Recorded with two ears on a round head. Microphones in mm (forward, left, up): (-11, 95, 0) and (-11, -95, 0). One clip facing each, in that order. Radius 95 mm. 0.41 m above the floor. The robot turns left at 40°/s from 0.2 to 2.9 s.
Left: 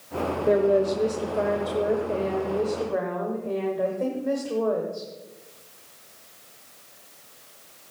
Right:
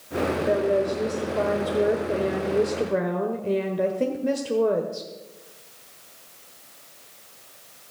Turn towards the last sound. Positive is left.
turn(degrees=-50)